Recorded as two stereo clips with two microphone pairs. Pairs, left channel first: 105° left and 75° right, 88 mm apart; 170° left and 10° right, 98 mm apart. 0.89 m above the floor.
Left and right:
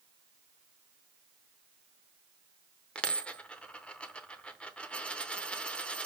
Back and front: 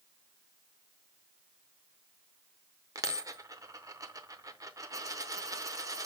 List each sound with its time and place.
3.0 s a dropped coin: 30° left, 0.6 m